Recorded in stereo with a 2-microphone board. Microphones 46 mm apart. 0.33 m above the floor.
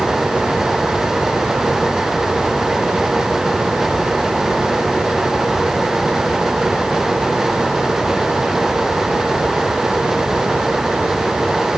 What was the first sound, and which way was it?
Only background noise.